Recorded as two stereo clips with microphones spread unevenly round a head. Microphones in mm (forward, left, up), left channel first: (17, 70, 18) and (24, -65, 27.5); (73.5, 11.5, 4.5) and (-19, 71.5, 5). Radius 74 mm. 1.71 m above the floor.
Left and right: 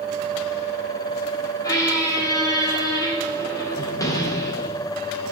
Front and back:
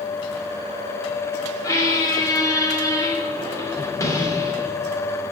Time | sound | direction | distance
1.6 | a squeak | 25° left | 3 m